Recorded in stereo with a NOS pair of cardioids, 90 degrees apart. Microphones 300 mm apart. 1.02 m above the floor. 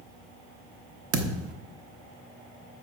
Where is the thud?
50° right, 1.0 m.